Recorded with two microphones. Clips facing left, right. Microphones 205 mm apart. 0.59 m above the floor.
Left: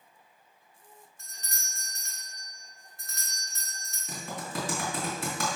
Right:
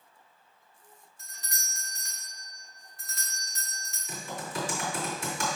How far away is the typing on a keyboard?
About 3 m.